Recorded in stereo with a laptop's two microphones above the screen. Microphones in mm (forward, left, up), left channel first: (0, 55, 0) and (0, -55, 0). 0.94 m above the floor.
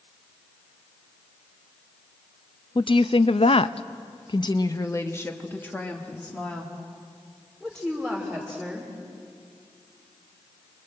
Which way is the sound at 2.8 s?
45° left (ahead or behind).